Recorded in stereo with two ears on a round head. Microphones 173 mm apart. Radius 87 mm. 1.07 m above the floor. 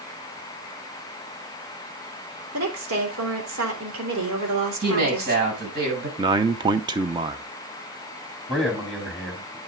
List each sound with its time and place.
2.5 s a woman speaking: 85° right, 3 m
4.8 s a woman speaking: 55° right (ahead or behind), 6.5 m
6.2 s a man speaking: 25° right (ahead or behind), 0.7 m
8.5 s a man speaking: 5° left (ahead or behind), 3 m